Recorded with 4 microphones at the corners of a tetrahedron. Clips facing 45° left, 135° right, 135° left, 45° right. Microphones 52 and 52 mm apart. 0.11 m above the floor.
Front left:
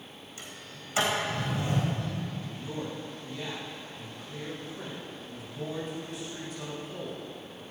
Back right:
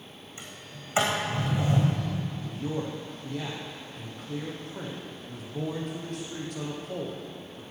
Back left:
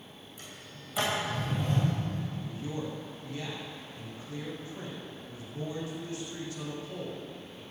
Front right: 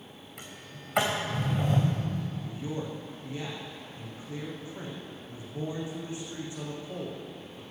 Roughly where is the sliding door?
Right.